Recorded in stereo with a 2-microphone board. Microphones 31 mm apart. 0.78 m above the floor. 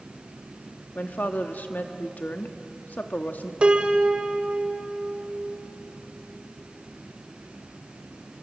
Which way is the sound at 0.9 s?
60° left (ahead or behind).